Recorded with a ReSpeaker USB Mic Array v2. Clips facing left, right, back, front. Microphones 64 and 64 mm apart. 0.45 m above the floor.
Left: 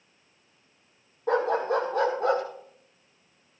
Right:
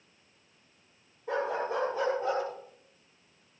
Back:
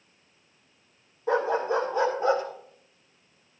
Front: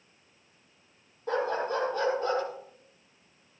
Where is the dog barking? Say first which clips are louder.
Left 7 dB, back 4 dB; 100° left, 8.5 m; by 2.4 s 110° left, 8.5 m.